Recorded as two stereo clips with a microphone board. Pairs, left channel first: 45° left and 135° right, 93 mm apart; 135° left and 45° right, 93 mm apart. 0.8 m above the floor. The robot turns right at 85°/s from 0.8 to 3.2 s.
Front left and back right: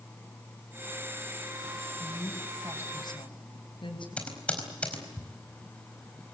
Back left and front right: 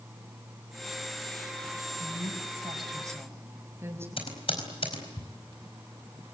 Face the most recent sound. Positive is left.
turn(degrees=120)